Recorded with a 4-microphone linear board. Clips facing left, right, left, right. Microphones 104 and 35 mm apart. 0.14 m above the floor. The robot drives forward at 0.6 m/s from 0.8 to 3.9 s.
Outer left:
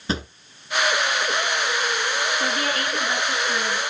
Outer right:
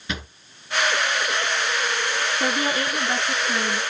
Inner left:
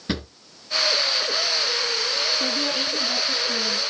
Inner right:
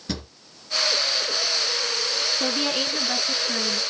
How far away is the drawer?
About 1.2 m.